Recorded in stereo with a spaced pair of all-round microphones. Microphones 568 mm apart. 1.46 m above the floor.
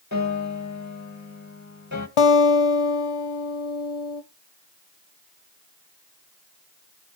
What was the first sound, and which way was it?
A piano, 30° left (ahead or behind).